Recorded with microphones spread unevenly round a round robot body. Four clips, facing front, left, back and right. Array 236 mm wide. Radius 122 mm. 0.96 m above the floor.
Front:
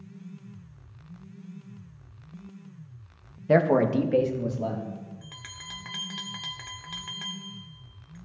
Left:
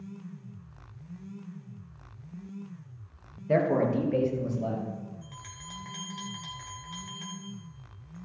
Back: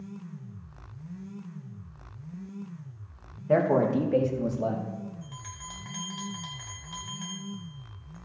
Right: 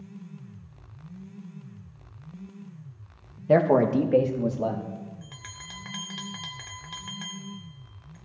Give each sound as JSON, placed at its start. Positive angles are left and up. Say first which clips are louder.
{"t": 3.5, "sound": "a man speaking", "louder": "right 5 dB, front 2 dB", "azimuth_deg": -80, "distance_m": 1.0}
{"t": 5.2, "sound": "a bell", "louder": "right 1 dB, back 3 dB", "azimuth_deg": -35, "distance_m": 1.3}